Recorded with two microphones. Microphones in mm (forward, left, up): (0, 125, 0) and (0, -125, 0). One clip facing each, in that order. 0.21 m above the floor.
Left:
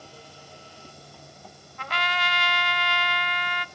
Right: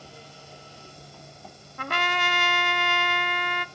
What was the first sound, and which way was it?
A trumpet, 50° right (ahead or behind).